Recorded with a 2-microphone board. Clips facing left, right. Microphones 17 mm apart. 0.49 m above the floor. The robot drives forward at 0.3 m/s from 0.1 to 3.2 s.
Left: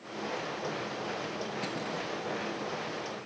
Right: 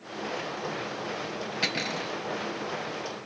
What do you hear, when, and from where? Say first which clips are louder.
1.6 s cutlery clinking: right 6 dB; 60° right (ahead or behind)